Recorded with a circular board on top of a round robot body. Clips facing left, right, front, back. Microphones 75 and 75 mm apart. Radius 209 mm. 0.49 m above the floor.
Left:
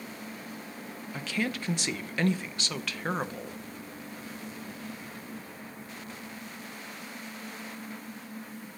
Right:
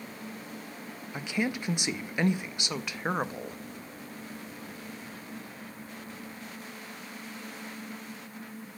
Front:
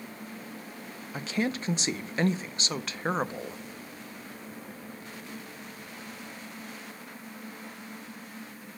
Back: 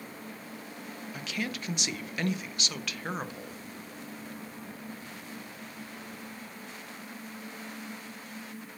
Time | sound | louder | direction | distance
1.1 | a woman speaking | right 1 dB, front 6 dB | 30° right | 1.0 m